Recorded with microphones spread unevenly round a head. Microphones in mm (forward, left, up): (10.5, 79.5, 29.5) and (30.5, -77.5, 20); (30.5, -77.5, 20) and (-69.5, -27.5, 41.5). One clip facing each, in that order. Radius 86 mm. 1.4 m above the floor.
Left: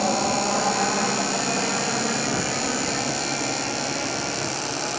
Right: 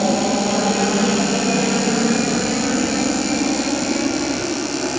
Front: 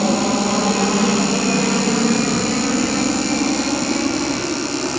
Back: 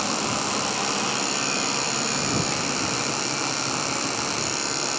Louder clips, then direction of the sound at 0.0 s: Right 5 dB, front 10 dB; 35° right.